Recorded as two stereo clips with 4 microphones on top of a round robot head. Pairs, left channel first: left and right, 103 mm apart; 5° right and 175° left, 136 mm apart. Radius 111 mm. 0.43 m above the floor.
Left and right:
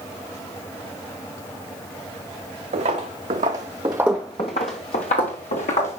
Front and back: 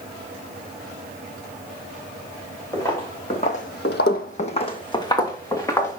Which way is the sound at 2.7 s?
80° right.